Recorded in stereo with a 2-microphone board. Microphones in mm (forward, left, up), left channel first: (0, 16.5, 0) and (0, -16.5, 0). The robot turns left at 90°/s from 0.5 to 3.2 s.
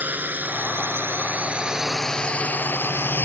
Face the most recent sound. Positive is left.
turn(degrees=65)  # may be behind; listen again after turning